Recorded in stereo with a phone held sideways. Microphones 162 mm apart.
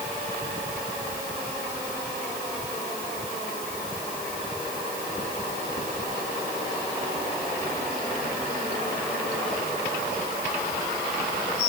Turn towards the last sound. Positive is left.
No sound to turn to.